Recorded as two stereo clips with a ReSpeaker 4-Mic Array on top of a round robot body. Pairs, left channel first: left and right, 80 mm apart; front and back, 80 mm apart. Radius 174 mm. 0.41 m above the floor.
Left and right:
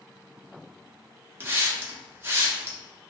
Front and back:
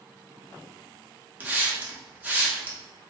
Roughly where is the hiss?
Behind right.